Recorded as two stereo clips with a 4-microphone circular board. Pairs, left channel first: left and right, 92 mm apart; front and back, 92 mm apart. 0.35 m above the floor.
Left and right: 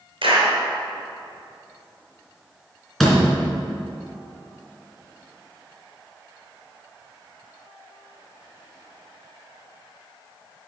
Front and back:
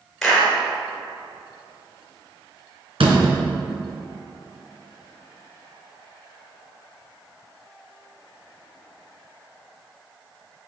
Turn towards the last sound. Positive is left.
turn(degrees=180)